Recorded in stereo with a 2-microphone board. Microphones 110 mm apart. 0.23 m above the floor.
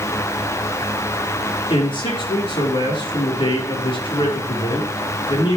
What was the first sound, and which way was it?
A man speaking, 50° left (ahead or behind).